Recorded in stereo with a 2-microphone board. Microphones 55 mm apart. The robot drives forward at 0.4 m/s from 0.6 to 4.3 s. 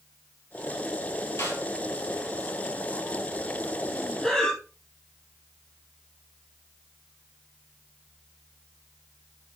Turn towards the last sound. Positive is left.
turn(degrees=15)  # may be behind; listen again after turning